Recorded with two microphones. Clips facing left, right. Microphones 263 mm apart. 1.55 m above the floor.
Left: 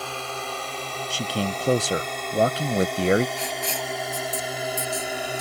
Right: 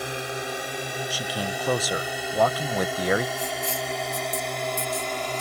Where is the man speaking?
25° left (ahead or behind).